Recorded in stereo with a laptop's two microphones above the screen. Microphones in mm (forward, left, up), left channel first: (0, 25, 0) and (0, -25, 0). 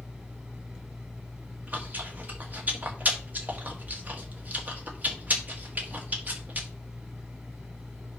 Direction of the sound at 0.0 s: 20° right (ahead or behind).